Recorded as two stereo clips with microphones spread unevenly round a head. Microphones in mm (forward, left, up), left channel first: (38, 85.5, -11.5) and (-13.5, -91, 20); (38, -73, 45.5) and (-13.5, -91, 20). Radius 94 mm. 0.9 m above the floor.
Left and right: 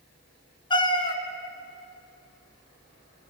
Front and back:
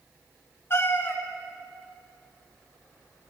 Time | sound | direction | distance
0.7 | a cat meowing | 5° left | 1.8 m